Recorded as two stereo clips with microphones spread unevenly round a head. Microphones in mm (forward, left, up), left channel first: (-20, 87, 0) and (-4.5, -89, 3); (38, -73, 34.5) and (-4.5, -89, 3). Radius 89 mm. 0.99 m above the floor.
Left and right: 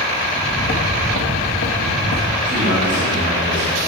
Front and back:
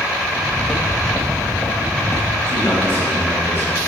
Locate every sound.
0.3 s footsteps: 35° left, 1.7 m; by 2.4 s 100° left, 1.6 m
2.5 s a man speaking: 135° right, 2 m